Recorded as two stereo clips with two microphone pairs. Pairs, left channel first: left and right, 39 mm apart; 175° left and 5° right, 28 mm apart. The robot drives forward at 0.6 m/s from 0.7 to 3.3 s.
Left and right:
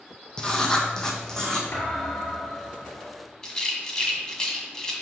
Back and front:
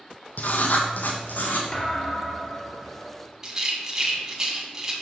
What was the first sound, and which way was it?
Writing, 160° left.